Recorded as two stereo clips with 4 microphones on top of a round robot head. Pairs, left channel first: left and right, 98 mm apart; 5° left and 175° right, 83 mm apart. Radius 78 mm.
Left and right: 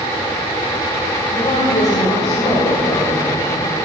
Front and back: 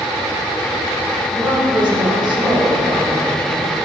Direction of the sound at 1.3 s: 150° left.